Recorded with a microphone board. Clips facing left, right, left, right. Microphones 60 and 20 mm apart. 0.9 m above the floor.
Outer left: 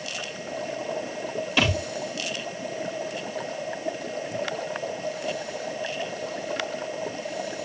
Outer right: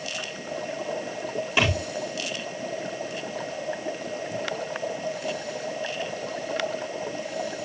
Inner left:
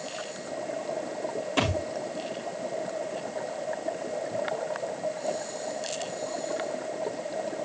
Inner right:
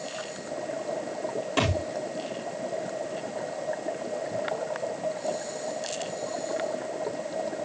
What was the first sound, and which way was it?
A thud, 15° right (ahead or behind).